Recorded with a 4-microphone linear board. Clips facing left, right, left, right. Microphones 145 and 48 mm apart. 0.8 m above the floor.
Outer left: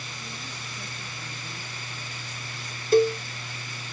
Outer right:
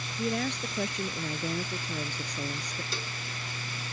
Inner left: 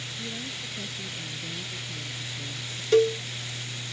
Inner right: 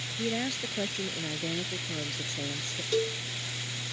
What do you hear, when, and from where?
0.2 s a woman speaking: 80° right
2.9 s a cowbell: 50° left (ahead or behind)